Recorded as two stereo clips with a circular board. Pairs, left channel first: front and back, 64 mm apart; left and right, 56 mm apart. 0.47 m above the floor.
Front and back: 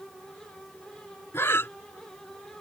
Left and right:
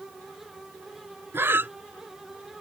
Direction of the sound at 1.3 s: 45° right.